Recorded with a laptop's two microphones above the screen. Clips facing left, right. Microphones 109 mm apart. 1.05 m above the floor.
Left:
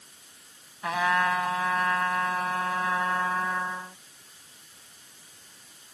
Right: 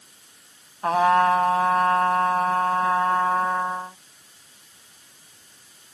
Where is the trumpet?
45° right (ahead or behind).